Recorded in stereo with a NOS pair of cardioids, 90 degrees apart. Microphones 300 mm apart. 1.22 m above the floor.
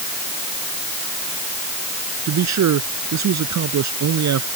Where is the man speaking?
60° right.